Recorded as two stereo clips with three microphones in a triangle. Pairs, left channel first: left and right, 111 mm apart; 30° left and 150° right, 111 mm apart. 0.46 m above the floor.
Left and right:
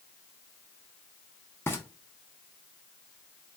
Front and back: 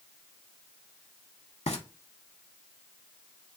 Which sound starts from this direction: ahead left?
Frying, at 1.7 s.